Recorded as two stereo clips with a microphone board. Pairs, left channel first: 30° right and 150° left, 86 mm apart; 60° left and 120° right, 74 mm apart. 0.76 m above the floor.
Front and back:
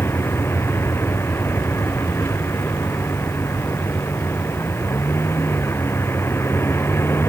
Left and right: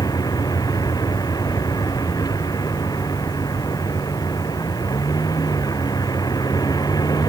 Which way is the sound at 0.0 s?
30° left.